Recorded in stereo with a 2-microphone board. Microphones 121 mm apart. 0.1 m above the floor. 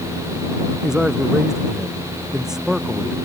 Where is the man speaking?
5° right (ahead or behind).